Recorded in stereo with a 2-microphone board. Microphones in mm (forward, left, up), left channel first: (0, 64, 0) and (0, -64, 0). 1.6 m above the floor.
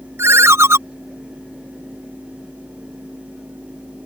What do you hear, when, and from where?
0.2 s a ringtone: 20° right (ahead or behind)